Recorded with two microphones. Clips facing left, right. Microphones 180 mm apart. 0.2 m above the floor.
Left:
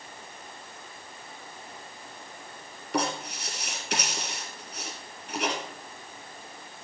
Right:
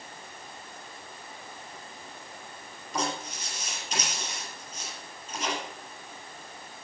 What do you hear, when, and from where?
2.9 s writing: 70° left (ahead or behind), 4 m